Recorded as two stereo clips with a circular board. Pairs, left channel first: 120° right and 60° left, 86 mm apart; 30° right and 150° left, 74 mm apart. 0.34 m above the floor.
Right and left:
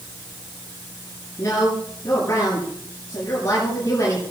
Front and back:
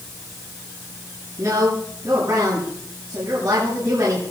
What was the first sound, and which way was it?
A woman speaking, 170° right.